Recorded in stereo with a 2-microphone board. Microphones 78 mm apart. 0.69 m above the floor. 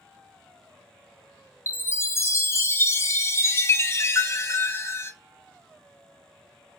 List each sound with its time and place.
1.7 s a chime: 30° left (ahead or behind), 0.5 m